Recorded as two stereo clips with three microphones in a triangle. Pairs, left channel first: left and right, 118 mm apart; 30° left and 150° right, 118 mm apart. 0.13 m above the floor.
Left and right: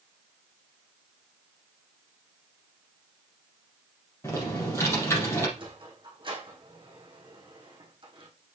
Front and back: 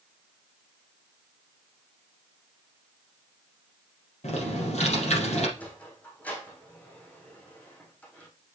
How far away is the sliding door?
About 3.5 m.